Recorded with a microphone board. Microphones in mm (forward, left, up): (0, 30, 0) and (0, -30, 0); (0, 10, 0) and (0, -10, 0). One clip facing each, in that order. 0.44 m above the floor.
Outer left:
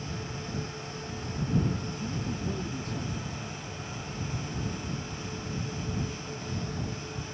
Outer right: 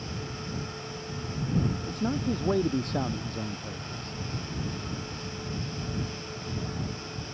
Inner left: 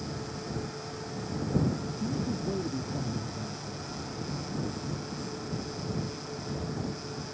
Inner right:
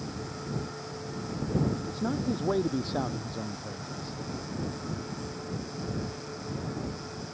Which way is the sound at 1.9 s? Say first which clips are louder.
Outer right 5 dB, inner right 2 dB; 65° right (ahead or behind).